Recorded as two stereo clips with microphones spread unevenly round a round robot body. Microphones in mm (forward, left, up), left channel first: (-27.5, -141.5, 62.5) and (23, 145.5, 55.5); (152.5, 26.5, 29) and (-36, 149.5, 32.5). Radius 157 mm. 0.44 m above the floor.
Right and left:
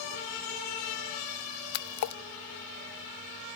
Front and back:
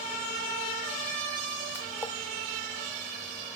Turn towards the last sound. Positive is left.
turn(degrees=-110)